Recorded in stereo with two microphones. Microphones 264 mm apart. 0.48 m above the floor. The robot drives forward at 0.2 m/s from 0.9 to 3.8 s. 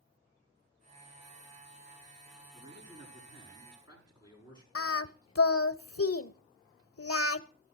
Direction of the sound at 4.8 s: 60° left (ahead or behind).